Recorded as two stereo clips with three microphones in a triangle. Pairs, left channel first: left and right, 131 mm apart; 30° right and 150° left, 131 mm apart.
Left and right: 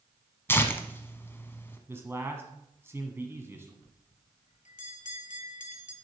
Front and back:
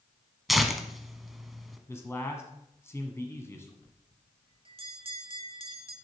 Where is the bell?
105° left, 0.7 m.